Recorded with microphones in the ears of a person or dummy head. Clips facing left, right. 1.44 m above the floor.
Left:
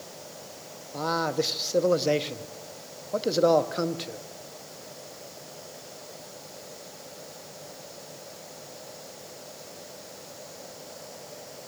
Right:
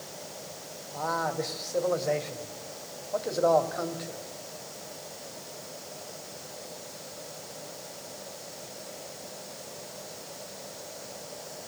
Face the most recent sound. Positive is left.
turn(degrees=40)  # may be behind; listen again after turning